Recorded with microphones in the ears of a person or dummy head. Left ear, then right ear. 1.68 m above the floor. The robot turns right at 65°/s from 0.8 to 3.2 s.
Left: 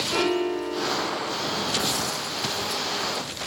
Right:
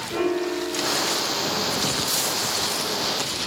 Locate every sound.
0.1 s a piano: 35° left, 1.0 m; by 1.4 s 75° left, 1.0 m